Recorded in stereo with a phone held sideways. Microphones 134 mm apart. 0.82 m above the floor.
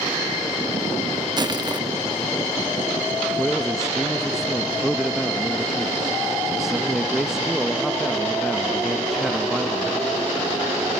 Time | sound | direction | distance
1.4 | crushing | 30° right (ahead or behind) | 1.2 m
3.4 | a man speaking | 5° right (ahead or behind) | 0.7 m